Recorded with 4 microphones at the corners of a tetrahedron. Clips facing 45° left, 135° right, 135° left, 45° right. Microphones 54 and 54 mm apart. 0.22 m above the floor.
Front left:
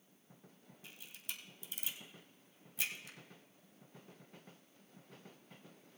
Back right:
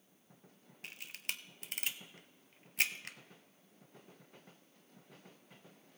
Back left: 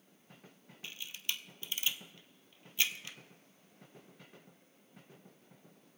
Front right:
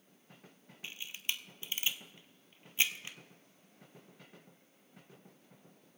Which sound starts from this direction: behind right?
A camera shutter, at 0.8 s.